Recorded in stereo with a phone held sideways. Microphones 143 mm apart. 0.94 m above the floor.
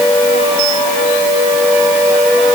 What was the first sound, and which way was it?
Only background noise.